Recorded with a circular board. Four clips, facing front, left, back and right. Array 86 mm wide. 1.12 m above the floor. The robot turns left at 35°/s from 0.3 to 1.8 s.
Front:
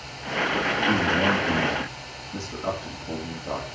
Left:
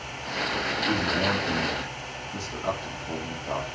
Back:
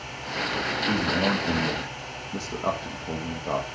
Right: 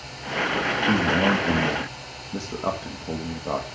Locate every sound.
0.9 s a man speaking: 90° right, 1.7 m; by 3.6 s 125° right, 1.7 m